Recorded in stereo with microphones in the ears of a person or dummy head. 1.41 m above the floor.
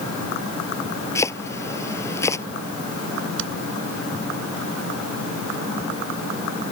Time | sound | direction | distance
1.1 | chopping | 15° left (ahead or behind) | ?
3.4 | hammering | 65° right (ahead or behind) | ?